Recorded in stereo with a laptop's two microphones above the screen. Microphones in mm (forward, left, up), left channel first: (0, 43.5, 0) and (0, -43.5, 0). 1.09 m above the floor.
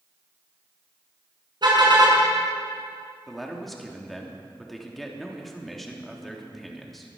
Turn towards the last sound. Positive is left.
turn(degrees=0)  # may be behind; listen again after turning